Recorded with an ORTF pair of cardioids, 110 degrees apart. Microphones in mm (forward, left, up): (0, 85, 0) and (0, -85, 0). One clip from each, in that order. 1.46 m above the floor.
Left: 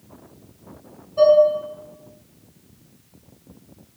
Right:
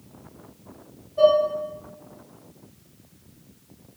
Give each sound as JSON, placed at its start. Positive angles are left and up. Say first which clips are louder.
{"t": 1.2, "sound": "dishes clattering", "louder": "left 4 dB", "azimuth_deg": 60, "distance_m": 1.3}